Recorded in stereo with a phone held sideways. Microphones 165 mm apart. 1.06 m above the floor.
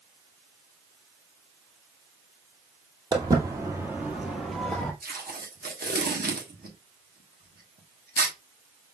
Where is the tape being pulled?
65° right (ahead or behind), 1.2 m.